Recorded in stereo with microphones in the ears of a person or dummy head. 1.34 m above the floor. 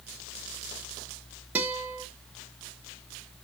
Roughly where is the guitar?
Centre.